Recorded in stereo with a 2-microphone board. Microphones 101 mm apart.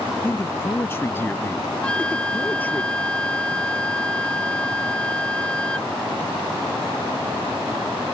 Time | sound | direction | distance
0.2 | a man speaking | 20° left (ahead or behind) | ?
1.8 | a flute | 10° left (ahead or behind) | ?